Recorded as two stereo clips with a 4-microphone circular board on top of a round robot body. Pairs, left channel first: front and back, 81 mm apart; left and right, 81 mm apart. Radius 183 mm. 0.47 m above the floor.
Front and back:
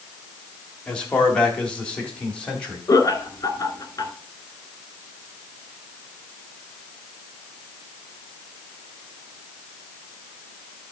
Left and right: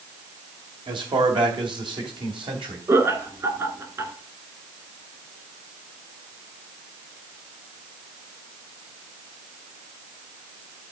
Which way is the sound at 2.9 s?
40° right.